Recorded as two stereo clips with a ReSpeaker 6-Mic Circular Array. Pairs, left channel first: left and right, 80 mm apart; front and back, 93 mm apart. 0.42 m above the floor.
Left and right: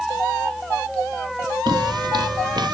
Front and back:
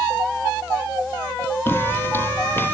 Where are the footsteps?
65° right.